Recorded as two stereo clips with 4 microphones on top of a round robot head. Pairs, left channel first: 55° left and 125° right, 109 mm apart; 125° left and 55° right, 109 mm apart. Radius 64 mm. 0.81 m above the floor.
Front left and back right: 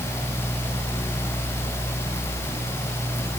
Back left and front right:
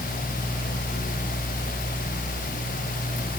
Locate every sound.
Only background noise.